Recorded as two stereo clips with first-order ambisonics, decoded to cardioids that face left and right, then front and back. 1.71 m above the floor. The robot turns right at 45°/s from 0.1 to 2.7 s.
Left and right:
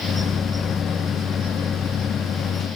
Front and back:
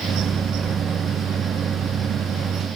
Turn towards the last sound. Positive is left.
No sound to turn to.